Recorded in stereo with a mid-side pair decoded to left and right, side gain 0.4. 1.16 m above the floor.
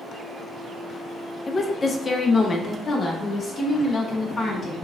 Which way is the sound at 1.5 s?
35° left.